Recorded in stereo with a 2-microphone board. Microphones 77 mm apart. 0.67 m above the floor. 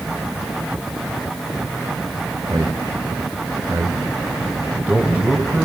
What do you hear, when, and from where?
2.5 s a man speaking: 70° right (ahead or behind), 2.5 m; by 5.7 s 10° right (ahead or behind), 4 m